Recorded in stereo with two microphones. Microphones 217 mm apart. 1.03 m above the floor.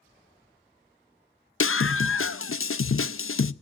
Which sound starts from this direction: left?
A scream, at 1.6 s.